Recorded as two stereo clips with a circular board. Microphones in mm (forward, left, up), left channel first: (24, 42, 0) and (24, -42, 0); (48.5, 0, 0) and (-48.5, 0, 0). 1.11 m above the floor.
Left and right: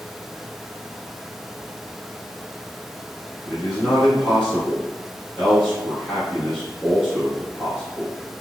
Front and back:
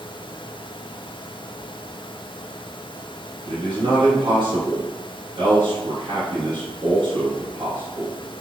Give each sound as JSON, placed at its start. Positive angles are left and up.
{"t": 3.5, "sound": "a man speaking", "azimuth_deg": -170, "distance_m": 1.2}